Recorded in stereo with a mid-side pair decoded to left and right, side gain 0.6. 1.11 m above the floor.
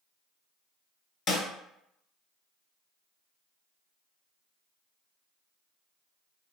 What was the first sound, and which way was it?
A snare drum, 50° left.